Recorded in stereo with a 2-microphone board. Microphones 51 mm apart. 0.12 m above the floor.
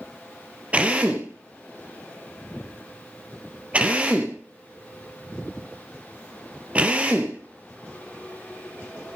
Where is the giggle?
No giggle in this recording.